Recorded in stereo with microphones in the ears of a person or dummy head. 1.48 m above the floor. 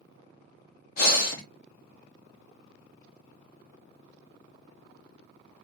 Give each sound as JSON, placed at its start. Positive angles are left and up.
{"t": 1.0, "sound": "breathing", "side_deg": 55, "distance_m": 0.6}